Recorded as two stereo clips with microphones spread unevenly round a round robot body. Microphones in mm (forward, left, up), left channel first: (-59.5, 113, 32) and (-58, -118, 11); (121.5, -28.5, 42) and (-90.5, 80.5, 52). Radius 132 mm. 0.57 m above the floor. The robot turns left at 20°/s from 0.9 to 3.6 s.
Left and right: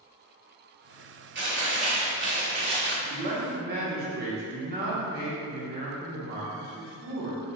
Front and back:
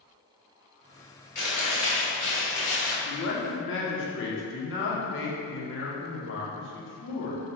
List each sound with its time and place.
1.4 s chewing: 80° right, 1.9 m; by 3.0 s 110° right, 1.9 m
3.0 s a man speaking: 40° right, 0.9 m; by 7.4 s 50° right, 0.9 m